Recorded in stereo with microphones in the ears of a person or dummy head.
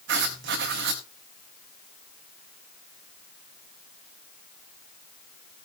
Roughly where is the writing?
Right.